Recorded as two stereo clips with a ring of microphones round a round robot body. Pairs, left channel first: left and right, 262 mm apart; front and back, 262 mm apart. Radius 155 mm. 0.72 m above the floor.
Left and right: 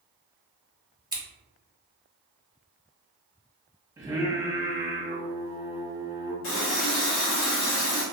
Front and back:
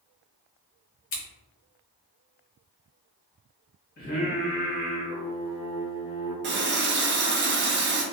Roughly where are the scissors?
Ahead.